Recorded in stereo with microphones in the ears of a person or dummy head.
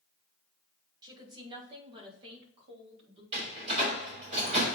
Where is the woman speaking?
25° right (ahead or behind), 2 m; by 3.2 s 30° right (ahead or behind), 3.5 m.